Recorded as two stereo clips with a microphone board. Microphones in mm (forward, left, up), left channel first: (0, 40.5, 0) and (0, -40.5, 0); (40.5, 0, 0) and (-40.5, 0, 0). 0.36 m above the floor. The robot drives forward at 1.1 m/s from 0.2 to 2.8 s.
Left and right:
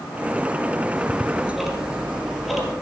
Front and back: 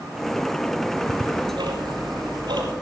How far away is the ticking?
About 1.4 m.